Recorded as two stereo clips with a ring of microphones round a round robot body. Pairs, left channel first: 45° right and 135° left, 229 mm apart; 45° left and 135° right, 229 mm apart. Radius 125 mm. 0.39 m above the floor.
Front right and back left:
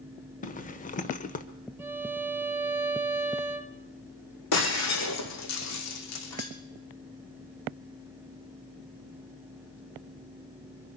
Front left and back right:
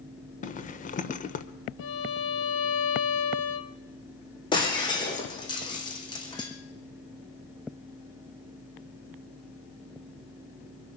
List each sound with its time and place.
0.4 s a zipper: straight ahead, 1.2 m
1.8 s a violin: 55° left, 1.4 m
4.5 s breaking glass: 25° right, 2.5 m